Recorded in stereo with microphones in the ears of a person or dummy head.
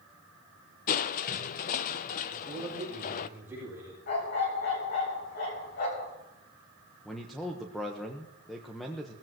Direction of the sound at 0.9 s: 40° left (ahead or behind).